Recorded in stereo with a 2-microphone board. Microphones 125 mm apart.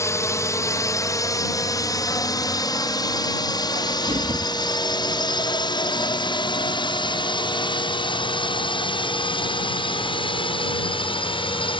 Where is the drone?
20° left (ahead or behind); by 11.8 s 40° left (ahead or behind).